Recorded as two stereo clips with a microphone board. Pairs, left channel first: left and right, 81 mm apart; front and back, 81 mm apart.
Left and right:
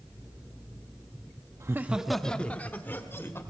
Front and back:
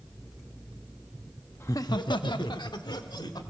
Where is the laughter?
50° right, 0.7 m; by 3.4 s 30° left, 2.5 m.